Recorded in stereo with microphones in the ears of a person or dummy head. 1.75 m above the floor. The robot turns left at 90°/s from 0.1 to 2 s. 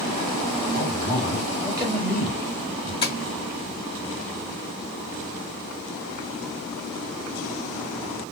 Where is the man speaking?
80° left, 1.5 m; by 2.9 s 35° right, 1.5 m.